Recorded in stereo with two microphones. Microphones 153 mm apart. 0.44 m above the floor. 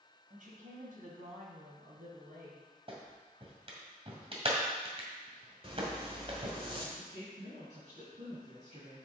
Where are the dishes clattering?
I don't hear dishes clattering.